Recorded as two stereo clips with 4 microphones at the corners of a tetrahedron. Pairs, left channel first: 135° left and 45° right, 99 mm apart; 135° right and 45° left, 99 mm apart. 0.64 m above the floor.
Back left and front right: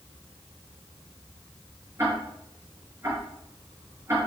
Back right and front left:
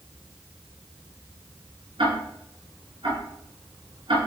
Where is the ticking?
15° left, 4.5 m.